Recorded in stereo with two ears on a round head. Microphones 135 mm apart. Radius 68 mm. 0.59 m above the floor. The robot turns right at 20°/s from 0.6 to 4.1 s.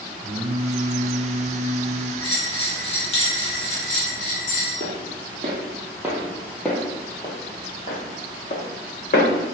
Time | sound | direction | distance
0.2 | singing | 120° right | 0.5 m
2.2 | a bell | 35° left | 1.4 m
4.8 | footsteps | 50° right (ahead or behind) | 1.2 m